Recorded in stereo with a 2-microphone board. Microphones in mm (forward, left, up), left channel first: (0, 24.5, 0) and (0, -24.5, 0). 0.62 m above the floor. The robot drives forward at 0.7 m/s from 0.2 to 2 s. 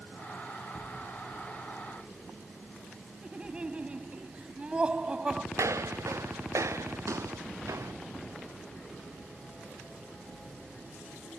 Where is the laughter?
20° right (ahead or behind).